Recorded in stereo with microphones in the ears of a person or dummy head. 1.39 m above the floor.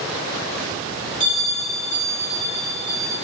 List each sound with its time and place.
1.2 s a bell: 40° left (ahead or behind), 2.5 m